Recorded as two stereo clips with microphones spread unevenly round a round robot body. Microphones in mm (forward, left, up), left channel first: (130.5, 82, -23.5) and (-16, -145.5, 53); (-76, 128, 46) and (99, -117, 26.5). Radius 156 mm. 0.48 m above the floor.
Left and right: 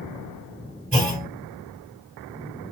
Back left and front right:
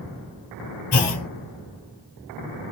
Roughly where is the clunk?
Behind.